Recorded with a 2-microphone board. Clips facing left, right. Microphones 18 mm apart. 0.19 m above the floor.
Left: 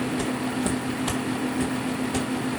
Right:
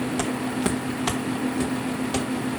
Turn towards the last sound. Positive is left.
turn(degrees=-70)  # may be behind; listen again after turning